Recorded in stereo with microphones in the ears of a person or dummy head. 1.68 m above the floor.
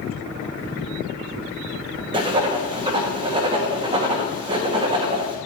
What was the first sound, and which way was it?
Writing, 25° right (ahead or behind).